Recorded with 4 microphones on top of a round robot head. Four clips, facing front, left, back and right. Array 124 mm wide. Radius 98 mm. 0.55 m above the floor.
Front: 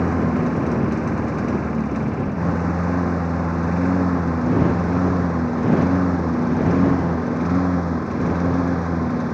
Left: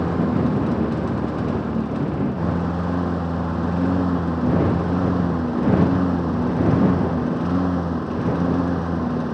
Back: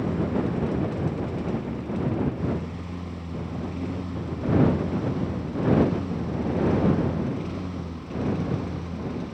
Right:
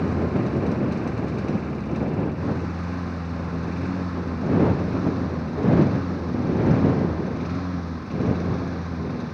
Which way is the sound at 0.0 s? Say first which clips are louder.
Left 3 dB, front 6 dB; 35° left.